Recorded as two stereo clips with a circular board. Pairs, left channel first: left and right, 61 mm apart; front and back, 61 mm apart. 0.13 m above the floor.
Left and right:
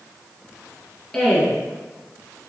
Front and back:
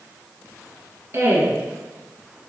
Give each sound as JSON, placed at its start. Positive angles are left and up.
{"t": 1.1, "sound": "a woman speaking", "azimuth_deg": 165, "distance_m": 1.8}